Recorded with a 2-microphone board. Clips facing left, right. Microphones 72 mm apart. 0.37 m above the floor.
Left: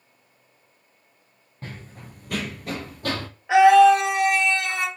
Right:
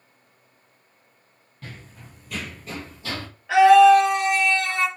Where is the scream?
20° left (ahead or behind), 1.2 m.